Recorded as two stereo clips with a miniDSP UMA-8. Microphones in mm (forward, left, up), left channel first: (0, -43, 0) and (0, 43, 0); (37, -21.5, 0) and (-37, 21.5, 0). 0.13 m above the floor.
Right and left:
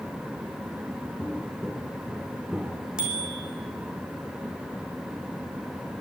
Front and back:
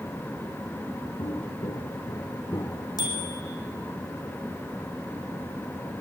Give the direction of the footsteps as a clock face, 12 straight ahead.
1 o'clock.